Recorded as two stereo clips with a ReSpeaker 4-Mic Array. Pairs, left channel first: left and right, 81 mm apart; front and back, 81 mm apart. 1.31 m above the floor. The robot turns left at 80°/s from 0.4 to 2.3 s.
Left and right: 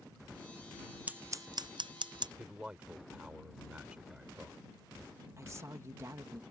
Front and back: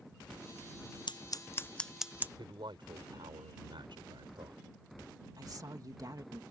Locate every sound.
1.1 s scissors: 20° right; by 2.3 s 115° right
2.4 s a man speaking: 170° right
5.4 s a woman speaking: 140° right